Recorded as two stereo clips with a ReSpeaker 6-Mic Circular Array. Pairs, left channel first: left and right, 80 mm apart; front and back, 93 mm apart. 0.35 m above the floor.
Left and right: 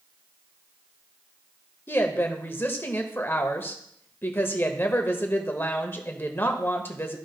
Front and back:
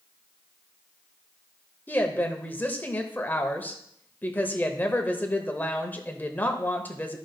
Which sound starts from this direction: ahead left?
A woman speaking, at 1.9 s.